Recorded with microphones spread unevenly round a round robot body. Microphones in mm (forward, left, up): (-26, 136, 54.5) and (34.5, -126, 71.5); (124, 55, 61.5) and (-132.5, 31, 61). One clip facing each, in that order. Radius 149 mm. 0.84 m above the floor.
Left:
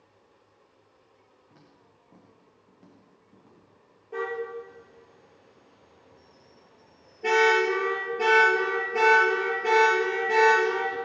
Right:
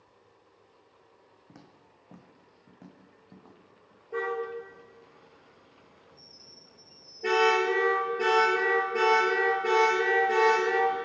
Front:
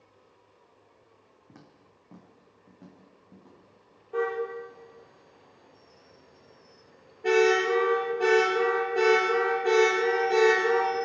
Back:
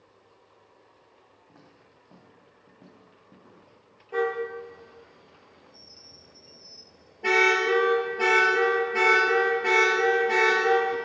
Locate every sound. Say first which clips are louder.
1.5 s footsteps: right 4 dB, front 2 dB; 50° right, 3.5 m; by 4.0 s 90° right, 6 m
4.1 s a car horn: even, back 1 dB; 170° right, 8.5 m